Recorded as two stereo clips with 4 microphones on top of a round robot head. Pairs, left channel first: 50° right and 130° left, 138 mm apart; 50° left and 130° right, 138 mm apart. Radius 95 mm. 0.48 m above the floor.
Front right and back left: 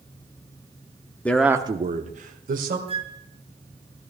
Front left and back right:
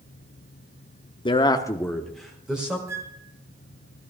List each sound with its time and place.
1.2 s a man speaking: 25° left, 0.8 m; by 2.8 s 145° left, 1.8 m
2.9 s a flute: 165° left, 1.3 m